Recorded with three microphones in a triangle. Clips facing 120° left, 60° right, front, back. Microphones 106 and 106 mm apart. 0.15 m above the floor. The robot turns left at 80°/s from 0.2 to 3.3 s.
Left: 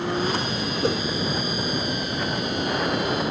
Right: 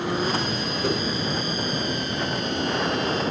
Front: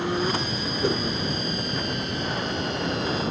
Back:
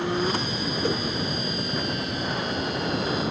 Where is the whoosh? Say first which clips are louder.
Left 2 dB, front 2 dB; 70° left, 1.7 m; by 1.0 s 55° left, 1.7 m.